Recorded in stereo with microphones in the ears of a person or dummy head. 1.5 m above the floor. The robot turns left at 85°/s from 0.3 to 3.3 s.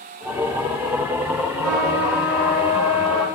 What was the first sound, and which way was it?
A trumpet, 115° right.